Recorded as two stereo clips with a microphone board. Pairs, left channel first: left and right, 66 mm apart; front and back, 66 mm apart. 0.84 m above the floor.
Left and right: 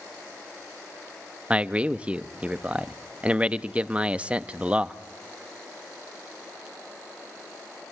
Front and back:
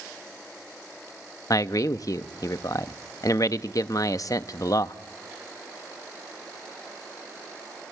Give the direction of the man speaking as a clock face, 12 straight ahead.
1 o'clock.